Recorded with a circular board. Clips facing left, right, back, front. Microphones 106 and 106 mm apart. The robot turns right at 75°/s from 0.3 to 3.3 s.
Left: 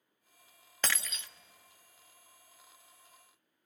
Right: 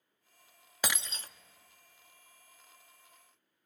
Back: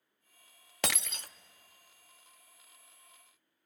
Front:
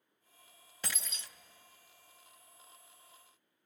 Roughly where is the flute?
I don't hear a flute.